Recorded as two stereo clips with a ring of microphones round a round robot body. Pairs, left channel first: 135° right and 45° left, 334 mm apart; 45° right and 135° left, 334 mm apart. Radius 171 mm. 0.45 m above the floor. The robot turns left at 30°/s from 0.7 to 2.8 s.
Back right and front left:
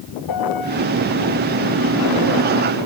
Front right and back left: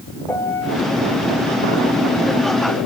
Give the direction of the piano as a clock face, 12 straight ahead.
4 o'clock.